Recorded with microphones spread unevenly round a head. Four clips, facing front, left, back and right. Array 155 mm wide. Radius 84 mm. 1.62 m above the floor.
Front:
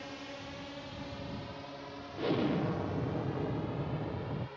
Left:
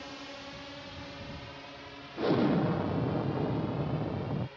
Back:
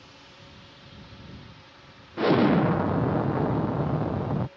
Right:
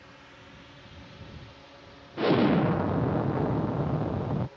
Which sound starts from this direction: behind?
An explosion, at 2.2 s.